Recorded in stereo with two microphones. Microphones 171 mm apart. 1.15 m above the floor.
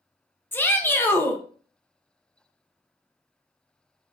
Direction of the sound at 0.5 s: 10° left (ahead or behind).